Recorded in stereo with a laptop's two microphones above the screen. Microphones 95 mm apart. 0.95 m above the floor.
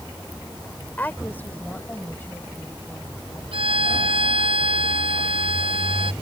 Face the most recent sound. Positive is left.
turn(degrees=-75)  # may be behind; listen again after turning